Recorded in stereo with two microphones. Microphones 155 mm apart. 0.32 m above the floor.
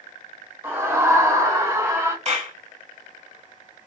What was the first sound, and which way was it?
A scream, 15° right (ahead or behind).